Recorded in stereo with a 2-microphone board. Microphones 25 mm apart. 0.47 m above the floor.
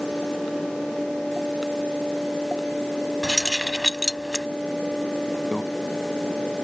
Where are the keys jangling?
20° left (ahead or behind).